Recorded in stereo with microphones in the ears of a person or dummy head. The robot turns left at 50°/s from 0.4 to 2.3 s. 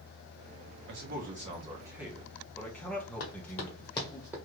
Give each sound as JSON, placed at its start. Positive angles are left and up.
{"t": 0.9, "sound": "a man speaking", "azimuth_deg": -115, "distance_m": 1.1}
{"t": 3.2, "sound": "running footsteps", "side_deg": 45, "distance_m": 1.6}